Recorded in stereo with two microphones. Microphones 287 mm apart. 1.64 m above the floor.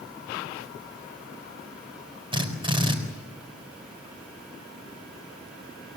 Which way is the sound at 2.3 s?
15° right (ahead or behind).